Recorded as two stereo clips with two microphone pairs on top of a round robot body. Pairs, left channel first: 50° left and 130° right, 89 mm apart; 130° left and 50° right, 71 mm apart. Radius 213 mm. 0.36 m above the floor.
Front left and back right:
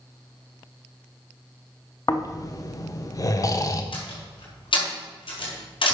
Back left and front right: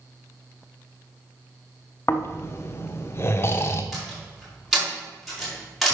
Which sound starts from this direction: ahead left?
A door slam, at 3.9 s.